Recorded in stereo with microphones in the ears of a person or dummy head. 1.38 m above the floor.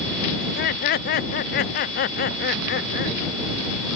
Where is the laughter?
50° left (ahead or behind).